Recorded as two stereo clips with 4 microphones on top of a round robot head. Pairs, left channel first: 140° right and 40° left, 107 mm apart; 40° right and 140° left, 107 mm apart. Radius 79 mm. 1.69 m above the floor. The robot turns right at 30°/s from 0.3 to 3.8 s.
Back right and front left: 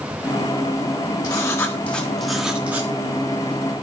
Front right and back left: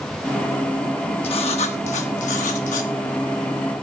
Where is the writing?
80° right, 1.2 m; by 2.9 s 30° right, 1.2 m.